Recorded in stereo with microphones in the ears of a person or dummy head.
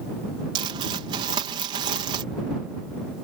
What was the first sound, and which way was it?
Crumpling, 35° right (ahead or behind).